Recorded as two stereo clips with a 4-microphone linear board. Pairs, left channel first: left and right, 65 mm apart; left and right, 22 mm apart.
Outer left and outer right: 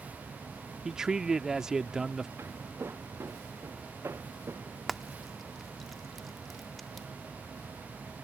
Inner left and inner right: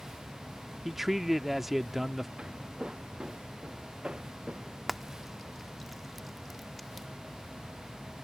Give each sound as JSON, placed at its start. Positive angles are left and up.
{"t": 0.8, "sound": "a man speaking", "side_deg": -10}
{"t": 2.4, "sound": "footsteps", "side_deg": -35}
{"t": 4.9, "sound": "frying", "side_deg": 0}